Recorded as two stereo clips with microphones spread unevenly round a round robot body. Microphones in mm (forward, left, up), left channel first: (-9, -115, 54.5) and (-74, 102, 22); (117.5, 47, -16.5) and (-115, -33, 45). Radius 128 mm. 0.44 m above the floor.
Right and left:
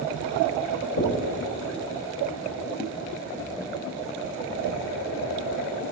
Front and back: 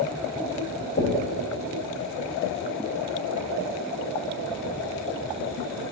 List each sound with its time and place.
1.0 s knocking: 30° right, 1.5 m